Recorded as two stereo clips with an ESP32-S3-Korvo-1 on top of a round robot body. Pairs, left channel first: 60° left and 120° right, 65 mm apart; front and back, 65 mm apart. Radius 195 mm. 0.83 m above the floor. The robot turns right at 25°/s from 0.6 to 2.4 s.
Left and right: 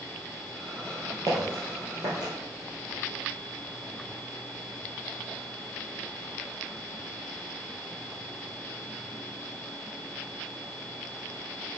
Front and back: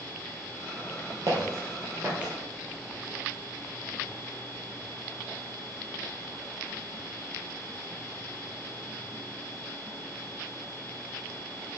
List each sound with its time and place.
1.3 s footsteps: 155° right, 1.7 m; by 2.3 s 100° right, 1.7 m